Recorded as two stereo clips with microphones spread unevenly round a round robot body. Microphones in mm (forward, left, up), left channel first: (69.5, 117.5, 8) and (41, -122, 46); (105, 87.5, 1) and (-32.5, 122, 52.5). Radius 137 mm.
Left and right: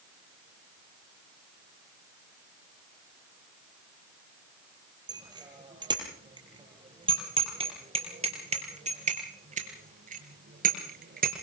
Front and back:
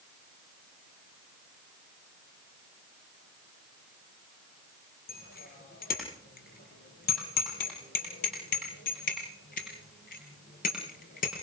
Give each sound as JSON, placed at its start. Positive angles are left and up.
{"t": 5.1, "sound": "a bicycle bell", "azimuth_deg": -25, "distance_m": 8.0}